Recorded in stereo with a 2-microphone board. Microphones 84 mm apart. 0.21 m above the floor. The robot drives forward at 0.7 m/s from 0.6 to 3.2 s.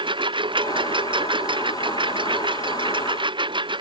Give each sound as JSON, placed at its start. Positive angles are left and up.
{"t": 0.0, "sound": "a lawn mower", "side_deg": -75}